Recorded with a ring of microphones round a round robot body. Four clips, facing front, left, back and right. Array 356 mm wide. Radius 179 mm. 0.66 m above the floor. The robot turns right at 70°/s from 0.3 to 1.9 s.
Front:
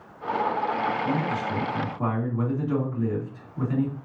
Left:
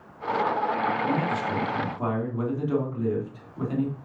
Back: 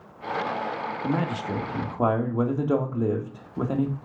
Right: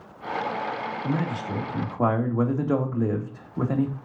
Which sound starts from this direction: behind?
A man speaking, at 1.0 s.